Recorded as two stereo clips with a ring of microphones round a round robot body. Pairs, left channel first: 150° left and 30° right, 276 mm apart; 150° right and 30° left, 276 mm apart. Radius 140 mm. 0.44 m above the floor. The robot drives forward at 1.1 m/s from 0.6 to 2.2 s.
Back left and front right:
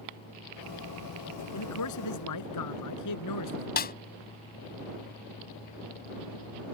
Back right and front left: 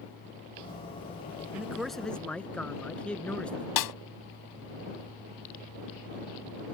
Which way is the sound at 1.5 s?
115° left.